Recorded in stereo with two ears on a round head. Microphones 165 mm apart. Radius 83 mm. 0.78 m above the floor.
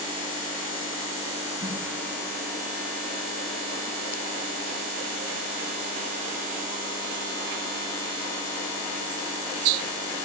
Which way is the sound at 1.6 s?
20° right (ahead or behind).